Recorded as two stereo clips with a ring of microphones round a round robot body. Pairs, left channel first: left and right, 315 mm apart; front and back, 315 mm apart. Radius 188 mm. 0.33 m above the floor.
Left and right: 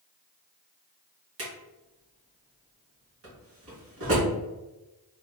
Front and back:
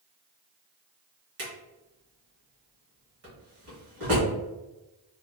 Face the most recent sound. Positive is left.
turn(degrees=-135)